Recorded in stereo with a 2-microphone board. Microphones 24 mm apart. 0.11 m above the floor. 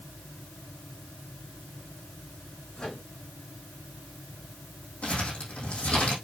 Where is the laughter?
No laughter in this recording.